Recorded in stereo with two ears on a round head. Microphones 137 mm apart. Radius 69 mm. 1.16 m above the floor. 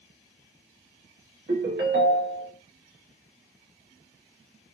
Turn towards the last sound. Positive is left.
turn(degrees=-70)  # may be behind; listen again after turning